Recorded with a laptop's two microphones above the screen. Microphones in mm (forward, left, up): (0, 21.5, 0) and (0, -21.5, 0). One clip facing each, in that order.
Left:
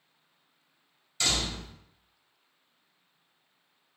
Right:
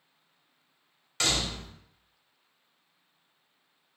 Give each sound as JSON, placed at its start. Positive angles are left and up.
{"t": 1.2, "sound": "a door slam", "side_deg": -75, "distance_m": 1.3}